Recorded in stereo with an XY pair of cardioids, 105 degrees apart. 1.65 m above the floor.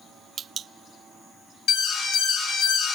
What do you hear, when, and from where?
1.7 s an alarm: 70° left, 2.5 m